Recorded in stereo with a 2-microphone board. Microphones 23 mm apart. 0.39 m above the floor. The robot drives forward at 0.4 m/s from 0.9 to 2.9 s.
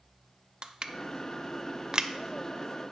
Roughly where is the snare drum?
I don't hear a snare drum.